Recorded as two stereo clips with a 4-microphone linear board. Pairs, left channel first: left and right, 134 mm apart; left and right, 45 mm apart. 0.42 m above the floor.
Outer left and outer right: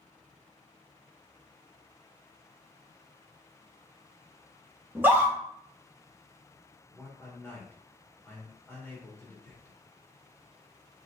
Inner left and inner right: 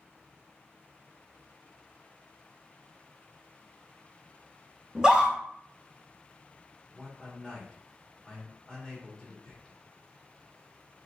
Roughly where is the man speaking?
Centre.